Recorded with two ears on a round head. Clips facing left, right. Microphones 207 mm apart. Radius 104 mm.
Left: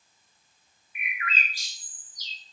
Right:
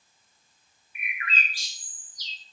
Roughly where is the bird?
Right.